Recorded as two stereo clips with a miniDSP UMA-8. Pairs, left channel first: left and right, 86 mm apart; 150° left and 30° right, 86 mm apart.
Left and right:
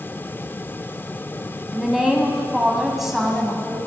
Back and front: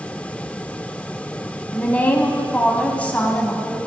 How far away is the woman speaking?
About 1.6 m.